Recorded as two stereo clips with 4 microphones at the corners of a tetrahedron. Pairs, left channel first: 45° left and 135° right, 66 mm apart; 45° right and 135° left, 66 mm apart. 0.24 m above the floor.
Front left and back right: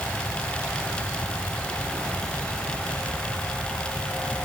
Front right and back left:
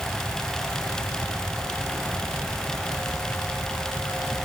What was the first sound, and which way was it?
Only background noise.